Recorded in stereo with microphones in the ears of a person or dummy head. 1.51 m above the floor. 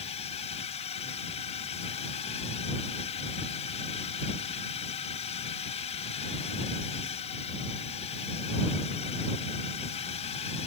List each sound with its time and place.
0.0 s a drone: 35° left (ahead or behind)